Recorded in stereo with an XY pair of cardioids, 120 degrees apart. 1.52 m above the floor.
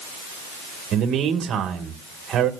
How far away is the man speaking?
About 1.5 m.